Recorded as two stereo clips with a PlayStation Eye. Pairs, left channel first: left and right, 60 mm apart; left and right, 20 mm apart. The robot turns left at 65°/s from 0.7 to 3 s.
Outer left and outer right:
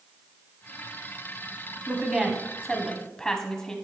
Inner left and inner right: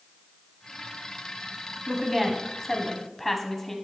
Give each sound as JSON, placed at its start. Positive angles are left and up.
{"t": 1.9, "sound": "a woman speaking", "side_deg": -20, "distance_m": 1.0}